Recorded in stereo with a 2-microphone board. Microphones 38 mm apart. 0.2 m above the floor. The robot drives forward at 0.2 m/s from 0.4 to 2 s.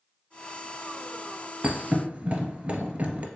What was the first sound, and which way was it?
A thud, 35° right (ahead or behind).